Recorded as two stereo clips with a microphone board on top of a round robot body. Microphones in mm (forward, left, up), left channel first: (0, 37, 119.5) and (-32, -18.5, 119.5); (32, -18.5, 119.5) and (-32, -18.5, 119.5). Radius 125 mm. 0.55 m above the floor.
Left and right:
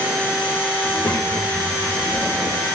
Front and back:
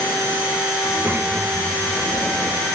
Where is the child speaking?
115° left, 1.8 m.